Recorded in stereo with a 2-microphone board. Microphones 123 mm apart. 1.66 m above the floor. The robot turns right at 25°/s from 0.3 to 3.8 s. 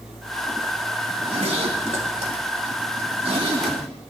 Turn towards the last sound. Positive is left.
turn(degrees=-50)  # may be behind; listen again after turning